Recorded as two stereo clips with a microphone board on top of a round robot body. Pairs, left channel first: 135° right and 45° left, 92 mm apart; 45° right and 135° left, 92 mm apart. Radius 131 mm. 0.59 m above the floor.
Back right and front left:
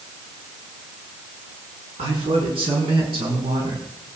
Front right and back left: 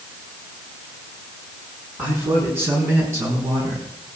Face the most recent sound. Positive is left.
turn(degrees=85)